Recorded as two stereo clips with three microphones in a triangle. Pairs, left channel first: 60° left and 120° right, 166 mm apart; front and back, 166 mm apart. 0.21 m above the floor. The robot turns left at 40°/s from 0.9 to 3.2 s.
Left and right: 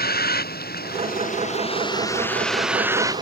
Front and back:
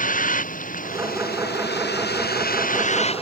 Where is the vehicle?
35° left; by 3.2 s 55° right.